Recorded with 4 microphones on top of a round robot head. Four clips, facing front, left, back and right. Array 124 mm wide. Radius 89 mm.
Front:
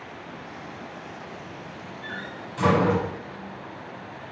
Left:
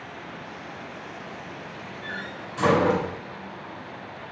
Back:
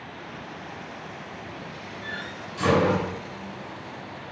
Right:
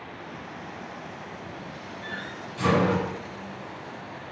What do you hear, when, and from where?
2.0 s a door slam: 60° left, 5 m